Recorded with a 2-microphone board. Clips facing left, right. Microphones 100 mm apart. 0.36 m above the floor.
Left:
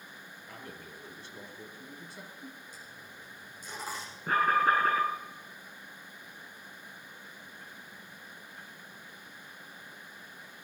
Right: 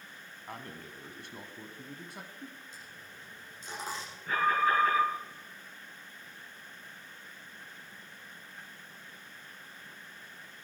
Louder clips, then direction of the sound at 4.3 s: Left 2 dB; 45° left (ahead or behind).